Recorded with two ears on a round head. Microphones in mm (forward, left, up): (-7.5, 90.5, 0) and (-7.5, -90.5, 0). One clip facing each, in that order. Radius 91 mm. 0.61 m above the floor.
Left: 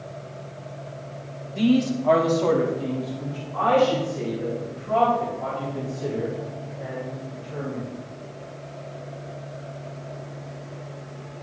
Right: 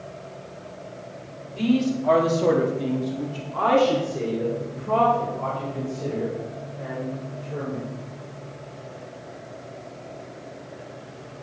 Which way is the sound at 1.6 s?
20° left (ahead or behind).